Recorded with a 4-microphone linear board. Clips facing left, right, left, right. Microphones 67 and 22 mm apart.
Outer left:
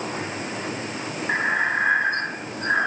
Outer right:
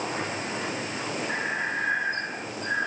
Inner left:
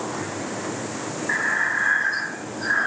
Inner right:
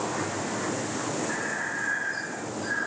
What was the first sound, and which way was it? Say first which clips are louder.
Breathing: outer left 10 dB, inner left 8 dB; 65° left (ahead or behind).